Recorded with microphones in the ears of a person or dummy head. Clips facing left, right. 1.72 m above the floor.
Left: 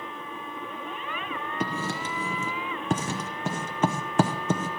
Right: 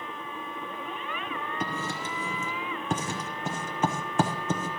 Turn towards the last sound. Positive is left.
turn(degrees=45)  # may be behind; listen again after turning